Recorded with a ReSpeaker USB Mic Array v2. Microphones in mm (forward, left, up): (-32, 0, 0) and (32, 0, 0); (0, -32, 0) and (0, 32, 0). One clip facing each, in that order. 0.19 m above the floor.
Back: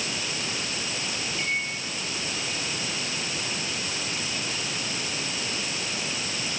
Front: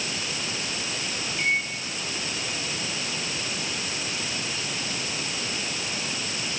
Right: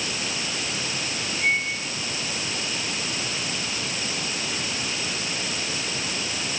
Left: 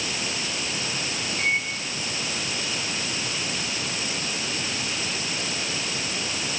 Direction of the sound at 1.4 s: 60° left.